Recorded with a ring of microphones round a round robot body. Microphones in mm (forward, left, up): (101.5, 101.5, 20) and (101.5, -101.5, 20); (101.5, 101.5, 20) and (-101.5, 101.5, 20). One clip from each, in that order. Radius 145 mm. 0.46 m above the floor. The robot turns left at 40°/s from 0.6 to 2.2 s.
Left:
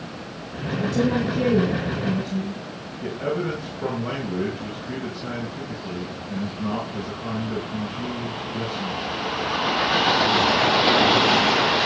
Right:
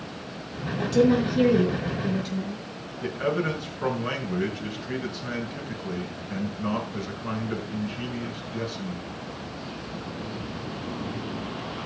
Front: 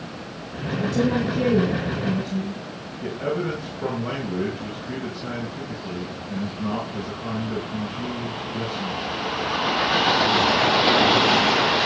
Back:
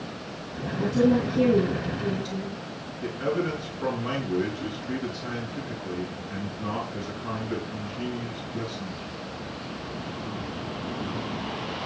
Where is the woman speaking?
60° right, 5 m; by 2.6 s 115° right, 5 m.